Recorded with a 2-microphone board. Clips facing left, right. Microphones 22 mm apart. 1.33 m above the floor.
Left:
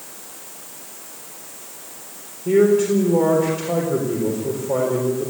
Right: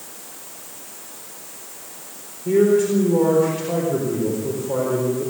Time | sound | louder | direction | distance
2.5 | a man speaking | left 1 dB | 10° left (ahead or behind) | 4 m